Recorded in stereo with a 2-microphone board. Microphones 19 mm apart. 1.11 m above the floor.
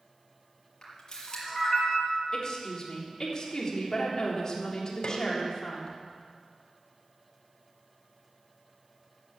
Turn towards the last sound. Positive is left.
turn(degrees=55)  # may be behind; listen again after turning